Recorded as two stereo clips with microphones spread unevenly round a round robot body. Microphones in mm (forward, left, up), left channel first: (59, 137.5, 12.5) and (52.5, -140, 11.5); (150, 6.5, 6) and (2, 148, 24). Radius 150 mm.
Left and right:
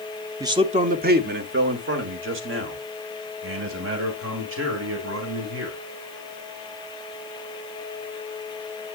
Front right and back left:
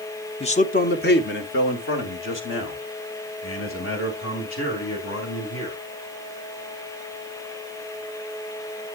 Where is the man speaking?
20° right, 0.8 m; by 5.8 s 55° right, 5 m.